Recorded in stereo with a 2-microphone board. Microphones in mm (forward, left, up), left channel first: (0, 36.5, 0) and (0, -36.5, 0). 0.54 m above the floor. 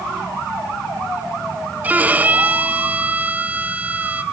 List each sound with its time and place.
1.8 s a violin: 20° right (ahead or behind), 1.1 m